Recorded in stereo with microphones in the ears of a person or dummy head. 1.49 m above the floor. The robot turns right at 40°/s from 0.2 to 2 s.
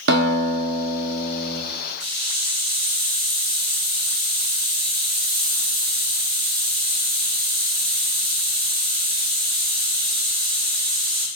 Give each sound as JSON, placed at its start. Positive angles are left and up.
{"t": 0.1, "sound": "a guitar", "azimuth_deg": -70, "distance_m": 0.8}
{"t": 2.0, "sound": "a hiss", "side_deg": -60, "distance_m": 2.0}